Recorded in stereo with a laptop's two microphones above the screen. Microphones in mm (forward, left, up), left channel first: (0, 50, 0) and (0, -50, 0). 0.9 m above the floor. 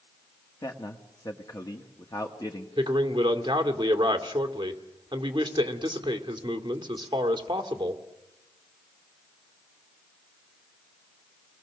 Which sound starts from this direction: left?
A man speaking, at 0.6 s.